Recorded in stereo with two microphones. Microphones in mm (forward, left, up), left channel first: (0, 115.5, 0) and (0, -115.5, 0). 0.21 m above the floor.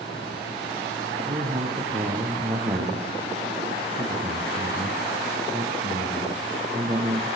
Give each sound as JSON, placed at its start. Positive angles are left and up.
{"t": 1.2, "sound": "a man speaking", "side_deg": -25, "distance_m": 6.0}